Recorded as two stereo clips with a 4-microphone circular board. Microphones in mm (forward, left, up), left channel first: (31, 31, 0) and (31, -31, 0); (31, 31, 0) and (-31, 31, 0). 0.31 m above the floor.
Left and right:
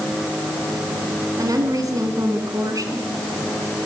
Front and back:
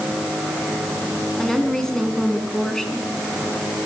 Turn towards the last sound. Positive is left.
turn(degrees=-80)